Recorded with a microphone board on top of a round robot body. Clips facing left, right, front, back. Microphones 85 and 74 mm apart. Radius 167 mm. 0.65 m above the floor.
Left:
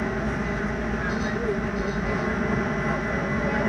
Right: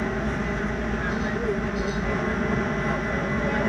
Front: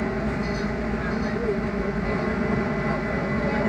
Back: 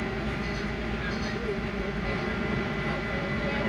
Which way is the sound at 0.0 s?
5° left.